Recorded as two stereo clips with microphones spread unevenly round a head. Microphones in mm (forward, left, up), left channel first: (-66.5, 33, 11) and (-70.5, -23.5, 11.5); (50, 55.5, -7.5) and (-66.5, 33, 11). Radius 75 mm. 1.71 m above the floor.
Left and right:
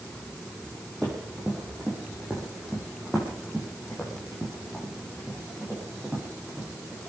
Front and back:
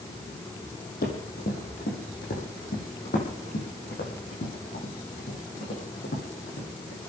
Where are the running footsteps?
Straight ahead, 4.5 m.